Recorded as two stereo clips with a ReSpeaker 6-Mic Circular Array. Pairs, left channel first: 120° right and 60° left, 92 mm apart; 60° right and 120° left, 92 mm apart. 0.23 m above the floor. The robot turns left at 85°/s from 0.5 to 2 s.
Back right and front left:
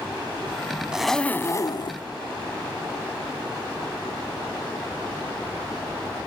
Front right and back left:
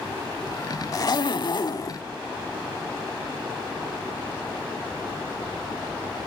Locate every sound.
0.9 s a zipper: 20° right, 0.6 m; by 2.0 s 110° right, 0.6 m